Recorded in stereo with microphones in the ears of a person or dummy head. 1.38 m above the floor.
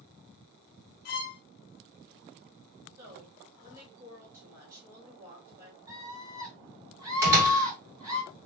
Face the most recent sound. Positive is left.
turn(degrees=-20)  # may be behind; listen again after turning